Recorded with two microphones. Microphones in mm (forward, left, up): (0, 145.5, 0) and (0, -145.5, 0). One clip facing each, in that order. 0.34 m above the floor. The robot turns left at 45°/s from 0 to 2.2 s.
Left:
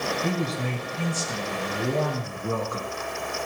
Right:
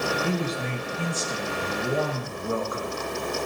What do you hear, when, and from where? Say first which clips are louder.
0.2 s a man speaking: even; 125° left, 4.5 m; by 2.9 s 40° left, 4.5 m